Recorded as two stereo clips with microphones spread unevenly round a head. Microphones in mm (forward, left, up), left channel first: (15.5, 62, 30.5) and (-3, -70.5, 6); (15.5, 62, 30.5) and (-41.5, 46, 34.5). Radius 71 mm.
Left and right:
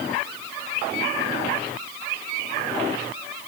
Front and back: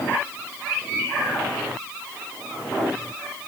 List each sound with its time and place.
Only background noise.